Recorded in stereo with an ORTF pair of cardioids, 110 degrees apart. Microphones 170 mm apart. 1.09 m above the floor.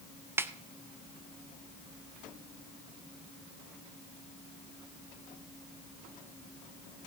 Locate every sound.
0.4 s a snare drum: 15° right, 0.7 m